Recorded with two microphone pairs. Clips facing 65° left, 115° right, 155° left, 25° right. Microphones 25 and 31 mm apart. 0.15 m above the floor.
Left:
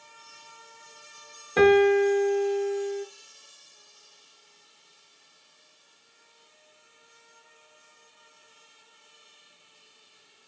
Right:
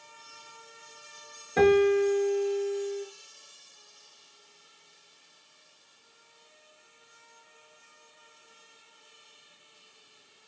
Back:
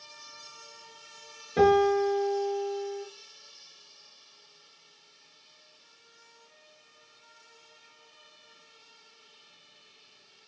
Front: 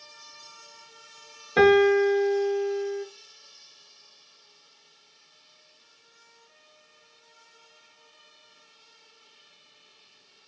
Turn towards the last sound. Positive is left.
turn(degrees=-5)